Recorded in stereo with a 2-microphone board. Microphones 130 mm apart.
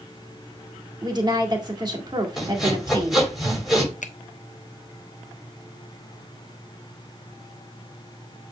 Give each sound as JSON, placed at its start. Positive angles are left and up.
{"t": 1.0, "sound": "a woman speaking", "side_deg": -35, "distance_m": 1.7}
{"t": 2.4, "sound": "sawing", "side_deg": 0, "distance_m": 4.5}
{"t": 4.0, "sound": "a finger snap", "side_deg": 75, "distance_m": 0.7}